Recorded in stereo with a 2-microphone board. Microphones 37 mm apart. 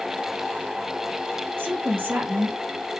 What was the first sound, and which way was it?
A woman speaking, 75° right (ahead or behind).